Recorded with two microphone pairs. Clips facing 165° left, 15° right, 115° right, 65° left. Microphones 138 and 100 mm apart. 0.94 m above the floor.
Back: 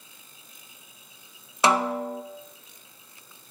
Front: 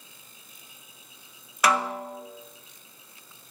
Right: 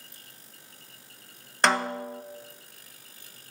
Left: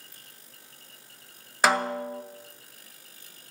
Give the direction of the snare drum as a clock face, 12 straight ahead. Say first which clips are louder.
Back 2 dB, left 1 dB; 7 o'clock.